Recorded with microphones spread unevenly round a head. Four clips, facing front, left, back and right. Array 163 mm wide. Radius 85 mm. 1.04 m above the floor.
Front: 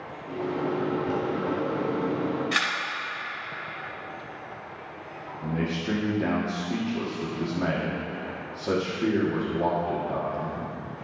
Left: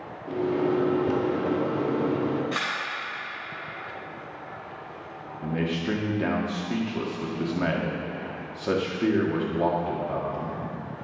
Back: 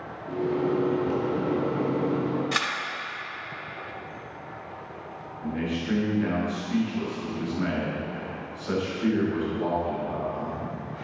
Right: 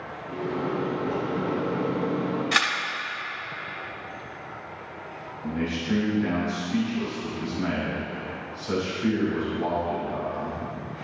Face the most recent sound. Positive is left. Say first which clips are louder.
# left 1 dB, even
turn(degrees=55)